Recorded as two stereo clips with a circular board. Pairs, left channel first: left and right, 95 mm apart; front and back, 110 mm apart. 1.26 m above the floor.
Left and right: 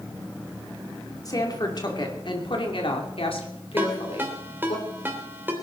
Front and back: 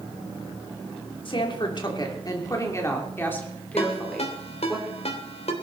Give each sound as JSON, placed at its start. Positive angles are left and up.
{"t": 1.2, "sound": "a woman speaking", "azimuth_deg": 40, "distance_m": 3.5}
{"t": 3.8, "sound": "a ringtone", "azimuth_deg": -20, "distance_m": 3.0}